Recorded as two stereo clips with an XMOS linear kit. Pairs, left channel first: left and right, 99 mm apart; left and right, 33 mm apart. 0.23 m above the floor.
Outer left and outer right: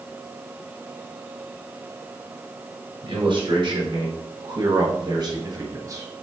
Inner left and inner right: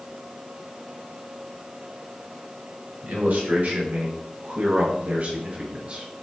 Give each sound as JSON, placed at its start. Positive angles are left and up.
{"t": 3.0, "sound": "a man speaking", "side_deg": -60, "distance_m": 3.0}